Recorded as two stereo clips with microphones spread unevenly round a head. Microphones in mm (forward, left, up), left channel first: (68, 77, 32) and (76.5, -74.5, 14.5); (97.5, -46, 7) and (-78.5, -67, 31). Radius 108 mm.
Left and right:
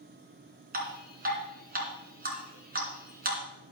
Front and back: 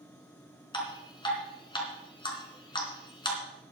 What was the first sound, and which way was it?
Dripping, 60° right.